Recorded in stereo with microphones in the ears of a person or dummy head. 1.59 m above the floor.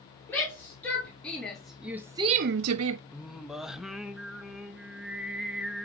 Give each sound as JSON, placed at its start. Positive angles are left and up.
{"t": 0.3, "sound": "a shout", "side_deg": 10, "distance_m": 3.0}
{"t": 3.1, "sound": "singing", "side_deg": -5, "distance_m": 0.8}